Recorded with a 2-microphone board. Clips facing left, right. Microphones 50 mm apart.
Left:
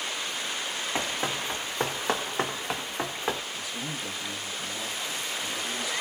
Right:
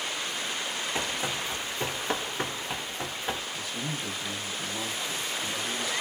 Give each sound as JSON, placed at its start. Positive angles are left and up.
{"t": 0.9, "sound": "running footsteps", "side_deg": 30, "distance_m": 1.0}
{"t": 3.5, "sound": "a man speaking", "side_deg": 0, "distance_m": 0.9}